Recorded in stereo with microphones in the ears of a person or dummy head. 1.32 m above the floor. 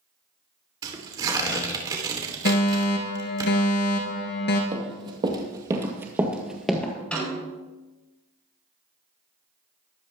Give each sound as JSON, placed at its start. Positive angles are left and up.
{"t": 0.8, "sound": "tearing paper", "side_deg": -25, "distance_m": 2.5}
{"t": 2.5, "sound": "a fire alarm", "side_deg": 55, "distance_m": 2.5}
{"t": 4.7, "sound": "running footsteps", "side_deg": -30, "distance_m": 2.5}
{"t": 7.1, "sound": "a snare drum", "side_deg": 5, "distance_m": 7.5}